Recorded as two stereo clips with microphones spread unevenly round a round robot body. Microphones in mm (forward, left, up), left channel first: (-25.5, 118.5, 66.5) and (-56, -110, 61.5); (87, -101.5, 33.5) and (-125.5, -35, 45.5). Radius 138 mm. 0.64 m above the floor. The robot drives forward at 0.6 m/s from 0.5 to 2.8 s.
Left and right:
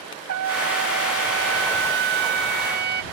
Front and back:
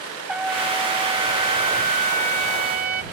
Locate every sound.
0.3 s a trumpet: 110° right; by 3.0 s 145° right